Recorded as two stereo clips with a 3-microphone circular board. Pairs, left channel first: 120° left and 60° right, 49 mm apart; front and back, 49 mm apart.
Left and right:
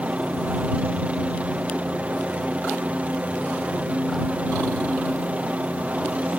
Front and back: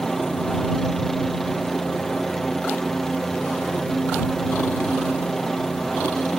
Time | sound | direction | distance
0.0 | a helicopter | 75° right | ?